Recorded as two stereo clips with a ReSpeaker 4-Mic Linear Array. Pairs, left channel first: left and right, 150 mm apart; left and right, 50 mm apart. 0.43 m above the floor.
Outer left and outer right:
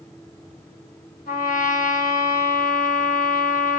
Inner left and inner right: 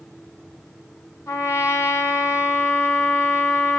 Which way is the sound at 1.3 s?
60° left (ahead or behind).